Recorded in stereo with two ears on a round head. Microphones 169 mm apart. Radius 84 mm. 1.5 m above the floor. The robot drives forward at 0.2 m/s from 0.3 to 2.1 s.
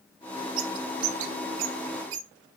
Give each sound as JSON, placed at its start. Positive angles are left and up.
{"t": 0.6, "sound": "a bird", "side_deg": -75, "distance_m": 3.0}